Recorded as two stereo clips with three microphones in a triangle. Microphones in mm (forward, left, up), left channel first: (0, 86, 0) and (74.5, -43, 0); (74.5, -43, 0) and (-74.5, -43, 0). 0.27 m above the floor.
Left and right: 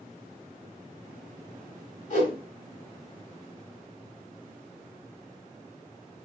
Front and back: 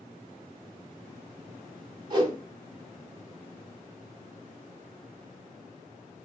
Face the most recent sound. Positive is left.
turn(degrees=130)